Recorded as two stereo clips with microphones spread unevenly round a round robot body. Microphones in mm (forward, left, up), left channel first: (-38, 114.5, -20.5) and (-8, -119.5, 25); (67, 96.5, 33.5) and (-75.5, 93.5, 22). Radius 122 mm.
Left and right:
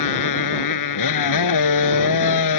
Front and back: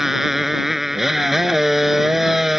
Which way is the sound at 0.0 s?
90° left.